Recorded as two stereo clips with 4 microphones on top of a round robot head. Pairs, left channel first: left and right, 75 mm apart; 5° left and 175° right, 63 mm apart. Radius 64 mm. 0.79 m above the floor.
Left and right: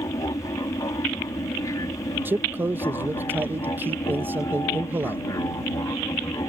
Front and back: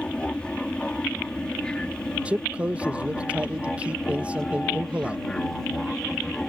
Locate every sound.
0.0 s an aircraft: 75° left; by 6.5 s 85° left
2.2 s a man speaking: 120° right